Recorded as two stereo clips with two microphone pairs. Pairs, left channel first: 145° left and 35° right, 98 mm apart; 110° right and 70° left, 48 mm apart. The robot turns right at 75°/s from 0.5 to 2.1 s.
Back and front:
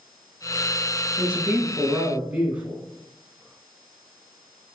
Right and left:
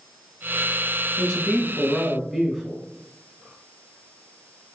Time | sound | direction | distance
1.2 | a man speaking | 75° right | 1.1 m